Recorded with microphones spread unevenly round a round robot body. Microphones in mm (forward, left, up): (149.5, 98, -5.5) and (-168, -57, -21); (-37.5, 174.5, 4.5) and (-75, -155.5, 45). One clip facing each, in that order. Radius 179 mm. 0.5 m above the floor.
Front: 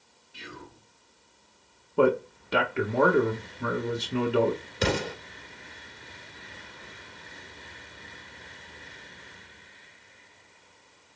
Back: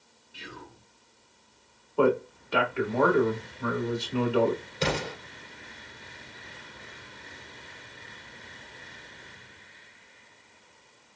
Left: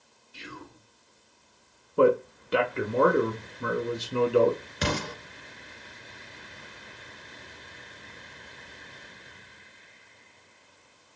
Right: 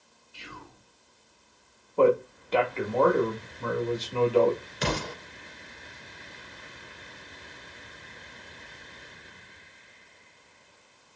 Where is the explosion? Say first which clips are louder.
Front 3 dB, left 1 dB; 95° left, 1.7 m.